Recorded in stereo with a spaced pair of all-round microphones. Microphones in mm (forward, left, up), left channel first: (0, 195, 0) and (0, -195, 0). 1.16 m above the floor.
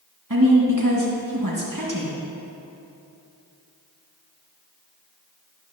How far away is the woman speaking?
About 1.7 m.